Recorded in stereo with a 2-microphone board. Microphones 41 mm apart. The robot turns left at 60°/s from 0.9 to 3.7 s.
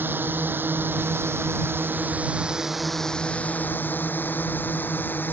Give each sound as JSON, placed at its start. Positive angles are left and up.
{"t": 0.0, "sound": "a drone", "side_deg": -55}